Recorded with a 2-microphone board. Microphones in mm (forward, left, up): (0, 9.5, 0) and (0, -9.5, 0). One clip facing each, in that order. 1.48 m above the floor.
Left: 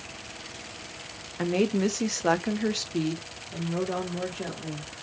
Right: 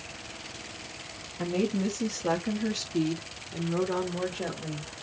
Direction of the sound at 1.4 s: 70° left (ahead or behind).